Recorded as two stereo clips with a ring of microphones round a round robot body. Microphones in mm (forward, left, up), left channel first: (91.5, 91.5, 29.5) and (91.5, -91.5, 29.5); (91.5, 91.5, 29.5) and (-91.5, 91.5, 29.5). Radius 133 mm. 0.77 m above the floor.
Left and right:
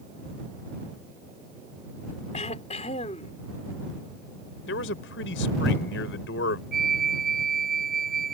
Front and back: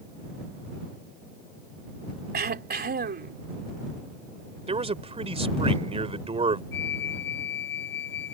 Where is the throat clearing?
150° left.